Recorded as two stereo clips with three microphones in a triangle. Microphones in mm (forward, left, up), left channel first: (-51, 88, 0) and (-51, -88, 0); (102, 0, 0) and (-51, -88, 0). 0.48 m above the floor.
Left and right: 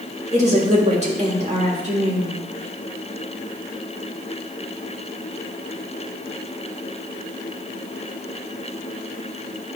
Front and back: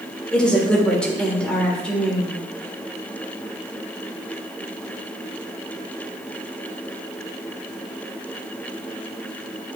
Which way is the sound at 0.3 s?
55° right.